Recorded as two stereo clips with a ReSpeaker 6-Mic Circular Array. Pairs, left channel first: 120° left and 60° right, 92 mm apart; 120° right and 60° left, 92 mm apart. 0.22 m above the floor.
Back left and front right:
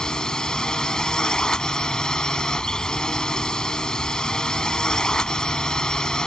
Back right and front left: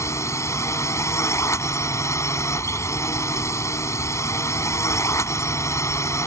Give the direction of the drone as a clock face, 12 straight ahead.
5 o'clock.